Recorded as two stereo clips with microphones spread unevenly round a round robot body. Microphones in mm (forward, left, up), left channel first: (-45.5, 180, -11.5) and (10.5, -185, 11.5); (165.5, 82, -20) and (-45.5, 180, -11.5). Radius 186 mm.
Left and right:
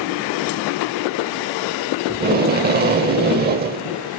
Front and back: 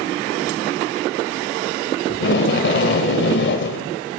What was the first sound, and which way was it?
Tape being pulled, 20° right.